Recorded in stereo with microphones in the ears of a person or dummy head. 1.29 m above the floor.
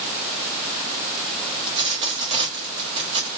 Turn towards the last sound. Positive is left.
turn(degrees=-30)  # may be behind; listen again after turning